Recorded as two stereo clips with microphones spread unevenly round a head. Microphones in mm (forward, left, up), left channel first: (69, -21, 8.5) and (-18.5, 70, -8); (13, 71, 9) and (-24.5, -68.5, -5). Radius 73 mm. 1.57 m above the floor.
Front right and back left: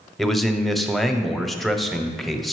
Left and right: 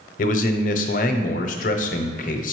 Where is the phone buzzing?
I don't hear a phone buzzing.